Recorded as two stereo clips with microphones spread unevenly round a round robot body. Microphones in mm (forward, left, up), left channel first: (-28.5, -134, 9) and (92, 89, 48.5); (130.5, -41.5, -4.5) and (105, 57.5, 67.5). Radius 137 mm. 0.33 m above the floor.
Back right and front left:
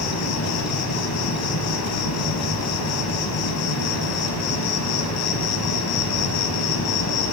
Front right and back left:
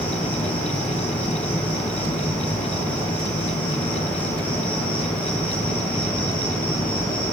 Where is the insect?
135° right, 1.3 m.